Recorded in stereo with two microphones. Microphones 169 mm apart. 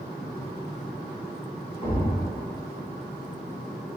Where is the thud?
50° left (ahead or behind), 1.9 m.